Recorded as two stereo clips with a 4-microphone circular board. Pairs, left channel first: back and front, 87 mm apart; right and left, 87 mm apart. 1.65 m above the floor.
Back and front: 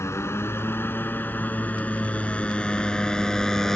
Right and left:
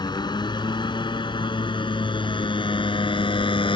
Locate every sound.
0.0 s a motorcycle: 120° right; by 3.8 s 95° right